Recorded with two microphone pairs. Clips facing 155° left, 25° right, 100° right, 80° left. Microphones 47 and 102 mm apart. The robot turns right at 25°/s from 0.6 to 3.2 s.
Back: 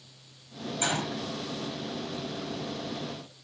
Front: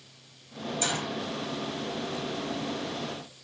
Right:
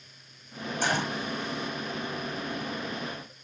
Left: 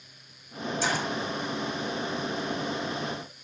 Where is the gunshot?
135° right, 4.5 m; by 1.2 s 125° right, 4.5 m.